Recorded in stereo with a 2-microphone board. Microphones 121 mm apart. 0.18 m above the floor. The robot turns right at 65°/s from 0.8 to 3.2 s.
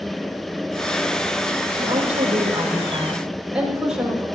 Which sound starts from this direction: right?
A woman speaking, at 1.8 s.